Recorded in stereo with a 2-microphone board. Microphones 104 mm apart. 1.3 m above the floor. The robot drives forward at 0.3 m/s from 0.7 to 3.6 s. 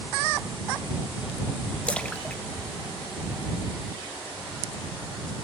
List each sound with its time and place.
1.9 s a splash: 10° left (ahead or behind), 0.5 m; by 4.0 s 5° left (ahead or behind), 0.9 m